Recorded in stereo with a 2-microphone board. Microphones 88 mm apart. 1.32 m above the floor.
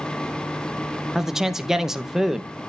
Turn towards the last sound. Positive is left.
turn(degrees=-5)  # may be behind; listen again after turning